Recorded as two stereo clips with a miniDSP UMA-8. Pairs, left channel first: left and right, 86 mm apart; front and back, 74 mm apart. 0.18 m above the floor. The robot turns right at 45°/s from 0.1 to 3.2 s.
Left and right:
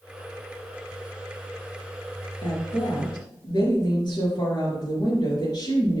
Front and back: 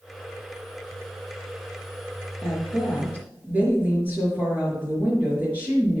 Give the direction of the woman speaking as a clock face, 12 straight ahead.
9 o'clock.